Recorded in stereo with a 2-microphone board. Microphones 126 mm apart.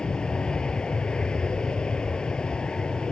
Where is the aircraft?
5° left (ahead or behind).